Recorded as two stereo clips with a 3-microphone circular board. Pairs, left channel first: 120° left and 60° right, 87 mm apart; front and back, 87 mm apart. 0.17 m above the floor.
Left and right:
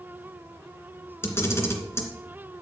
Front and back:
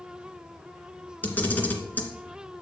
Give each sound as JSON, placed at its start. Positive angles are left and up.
{"t": 1.2, "sound": "a camera shutter", "azimuth_deg": 65, "distance_m": 2.5}